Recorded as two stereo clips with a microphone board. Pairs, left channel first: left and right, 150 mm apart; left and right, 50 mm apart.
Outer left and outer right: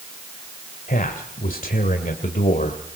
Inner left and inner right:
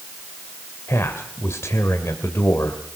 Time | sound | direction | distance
0.9 | a man speaking | 70° left (ahead or behind) | 2 m